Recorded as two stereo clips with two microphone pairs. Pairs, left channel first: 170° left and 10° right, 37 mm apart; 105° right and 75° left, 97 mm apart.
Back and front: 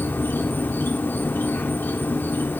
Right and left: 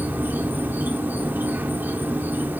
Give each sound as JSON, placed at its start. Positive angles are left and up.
{"t": 0.0, "sound": "an insect", "azimuth_deg": 150, "distance_m": 0.9}